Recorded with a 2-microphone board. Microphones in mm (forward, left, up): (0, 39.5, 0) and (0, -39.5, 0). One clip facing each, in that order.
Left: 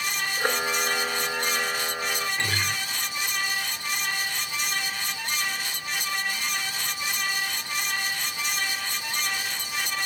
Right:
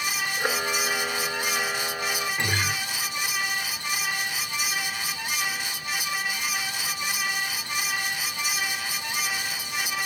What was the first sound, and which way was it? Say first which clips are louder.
A camera shutter: left 2 dB; 10° left (ahead or behind).